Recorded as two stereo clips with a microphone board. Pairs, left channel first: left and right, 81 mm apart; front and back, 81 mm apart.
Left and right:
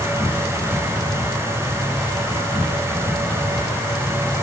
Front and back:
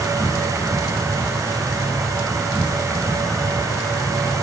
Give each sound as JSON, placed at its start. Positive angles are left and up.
{"t": 0.0, "sound": "an insect", "azimuth_deg": 90, "distance_m": 7.0}